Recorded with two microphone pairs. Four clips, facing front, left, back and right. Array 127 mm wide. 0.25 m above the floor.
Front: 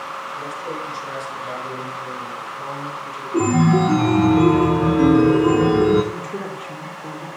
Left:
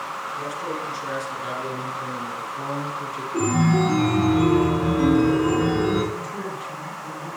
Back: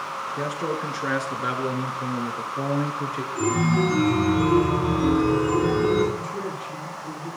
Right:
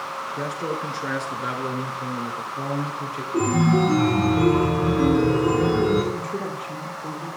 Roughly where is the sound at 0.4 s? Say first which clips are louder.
Right 3 dB, back 4 dB; behind right.